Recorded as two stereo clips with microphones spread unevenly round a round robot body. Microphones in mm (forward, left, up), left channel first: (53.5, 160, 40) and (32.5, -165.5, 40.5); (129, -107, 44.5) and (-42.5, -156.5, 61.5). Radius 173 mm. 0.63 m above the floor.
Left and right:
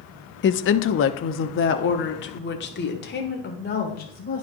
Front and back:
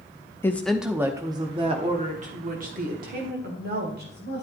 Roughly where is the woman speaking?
Left.